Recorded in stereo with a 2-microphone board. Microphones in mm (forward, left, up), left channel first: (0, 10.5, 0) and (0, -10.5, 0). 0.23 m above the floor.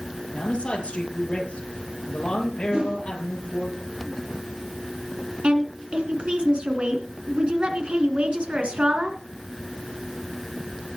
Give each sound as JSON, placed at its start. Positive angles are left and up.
{"t": 0.3, "sound": "a man speaking", "side_deg": 60, "distance_m": 5.0}
{"t": 2.7, "sound": "a whoosh", "side_deg": -55, "distance_m": 3.0}
{"t": 5.4, "sound": "a woman speaking", "side_deg": -55, "distance_m": 2.5}